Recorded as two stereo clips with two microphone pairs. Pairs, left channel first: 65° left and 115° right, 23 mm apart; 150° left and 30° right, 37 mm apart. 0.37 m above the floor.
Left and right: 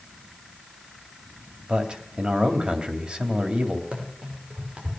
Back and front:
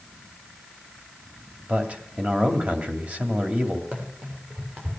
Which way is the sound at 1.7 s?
75° right.